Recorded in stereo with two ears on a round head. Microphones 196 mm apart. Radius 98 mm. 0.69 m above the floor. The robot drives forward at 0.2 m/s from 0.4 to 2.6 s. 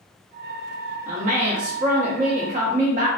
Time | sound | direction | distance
1.1 | a woman speaking | 35° right (ahead or behind) | 0.8 m